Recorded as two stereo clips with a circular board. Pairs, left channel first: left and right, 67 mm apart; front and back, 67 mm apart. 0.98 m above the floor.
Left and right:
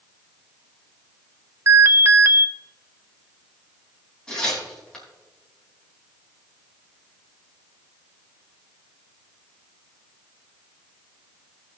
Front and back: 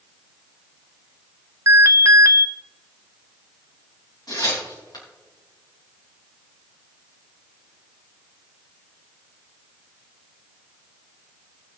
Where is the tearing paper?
15° left, 4 m.